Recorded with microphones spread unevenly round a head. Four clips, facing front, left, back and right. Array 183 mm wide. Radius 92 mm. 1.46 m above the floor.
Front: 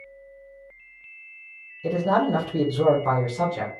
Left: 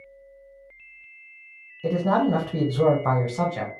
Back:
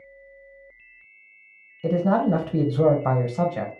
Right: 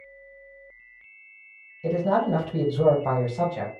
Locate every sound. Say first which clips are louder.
1.8 s a man speaking: left 1 dB, back 1 dB; 160° left, 0.8 m